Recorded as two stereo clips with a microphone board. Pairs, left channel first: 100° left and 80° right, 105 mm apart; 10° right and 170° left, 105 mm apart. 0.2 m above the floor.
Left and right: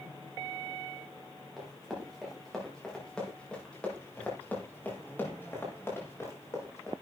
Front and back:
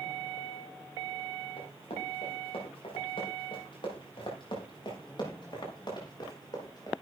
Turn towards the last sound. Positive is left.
turn(degrees=40)